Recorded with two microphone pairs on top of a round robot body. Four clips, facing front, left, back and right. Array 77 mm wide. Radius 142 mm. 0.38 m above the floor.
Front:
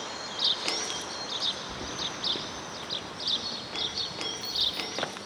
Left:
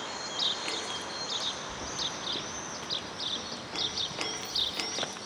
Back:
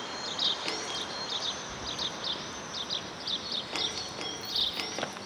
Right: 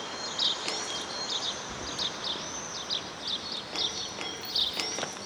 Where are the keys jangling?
30° right, 0.9 m; by 4.8 s 70° left, 3 m.